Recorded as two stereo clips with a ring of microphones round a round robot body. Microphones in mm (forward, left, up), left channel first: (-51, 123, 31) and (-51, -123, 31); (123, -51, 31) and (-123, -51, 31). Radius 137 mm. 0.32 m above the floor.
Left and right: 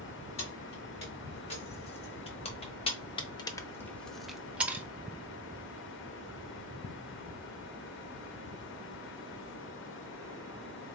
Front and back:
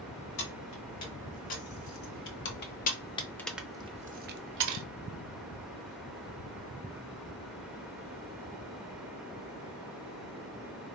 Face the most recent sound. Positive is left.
turn(degrees=-170)